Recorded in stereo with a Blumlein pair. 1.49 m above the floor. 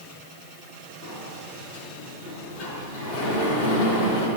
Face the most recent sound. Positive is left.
turn(degrees=45)